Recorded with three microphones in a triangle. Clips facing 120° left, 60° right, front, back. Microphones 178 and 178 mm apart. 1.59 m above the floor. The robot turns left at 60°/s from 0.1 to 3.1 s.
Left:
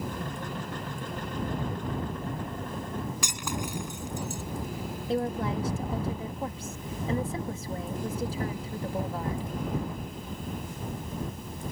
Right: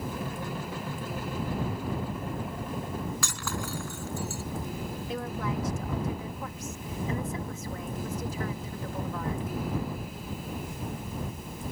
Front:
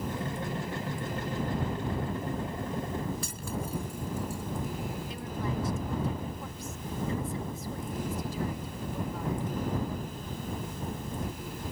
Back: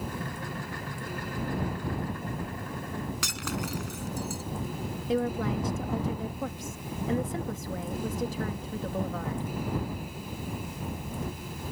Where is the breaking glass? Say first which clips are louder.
Left 1 dB, back 2 dB; 165° right.